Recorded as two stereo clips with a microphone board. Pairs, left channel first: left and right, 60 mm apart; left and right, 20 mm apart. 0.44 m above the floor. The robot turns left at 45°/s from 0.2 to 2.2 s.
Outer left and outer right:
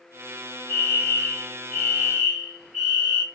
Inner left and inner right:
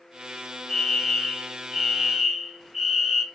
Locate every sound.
0.7 s a fire alarm: 40° left, 3 m; by 3.2 s 30° right, 3 m